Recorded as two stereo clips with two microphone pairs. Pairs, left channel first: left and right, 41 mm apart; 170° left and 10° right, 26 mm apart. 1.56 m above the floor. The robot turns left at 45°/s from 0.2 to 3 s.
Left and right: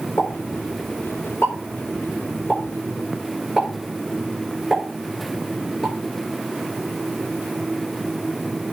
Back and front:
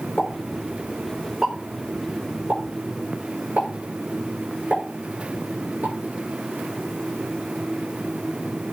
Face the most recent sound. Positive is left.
turn(degrees=-15)